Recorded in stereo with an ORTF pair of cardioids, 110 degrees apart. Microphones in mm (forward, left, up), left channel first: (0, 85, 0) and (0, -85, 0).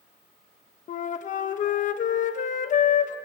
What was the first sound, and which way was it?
A flute, 45° left.